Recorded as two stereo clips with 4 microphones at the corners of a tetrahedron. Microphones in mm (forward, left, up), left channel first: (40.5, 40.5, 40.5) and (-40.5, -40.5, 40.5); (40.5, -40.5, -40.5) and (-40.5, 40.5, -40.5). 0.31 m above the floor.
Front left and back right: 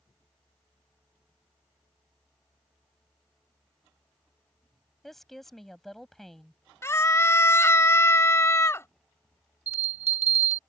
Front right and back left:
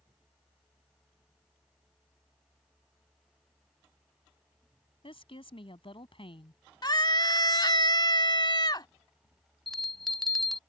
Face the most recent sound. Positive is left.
turn(degrees=-135)